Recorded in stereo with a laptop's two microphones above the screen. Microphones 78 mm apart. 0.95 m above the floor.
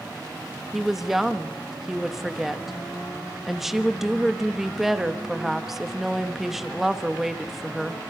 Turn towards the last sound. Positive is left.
turn(degrees=-5)  # may be behind; listen again after turning